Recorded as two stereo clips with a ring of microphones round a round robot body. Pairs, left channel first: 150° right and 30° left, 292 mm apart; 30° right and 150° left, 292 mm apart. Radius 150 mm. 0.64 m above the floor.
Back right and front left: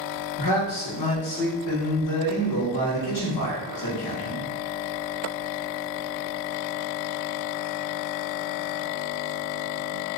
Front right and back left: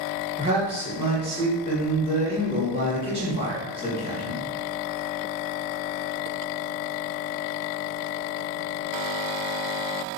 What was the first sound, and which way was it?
A man speaking, 140° right.